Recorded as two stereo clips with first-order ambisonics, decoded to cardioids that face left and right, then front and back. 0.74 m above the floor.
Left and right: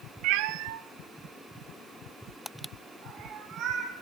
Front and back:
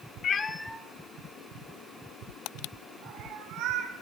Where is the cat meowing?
60° right, 0.6 m; by 3.9 s 140° right, 2.5 m.